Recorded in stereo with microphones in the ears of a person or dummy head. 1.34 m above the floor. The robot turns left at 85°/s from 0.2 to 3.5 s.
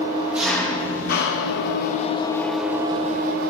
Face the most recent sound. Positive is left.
turn(degrees=-80)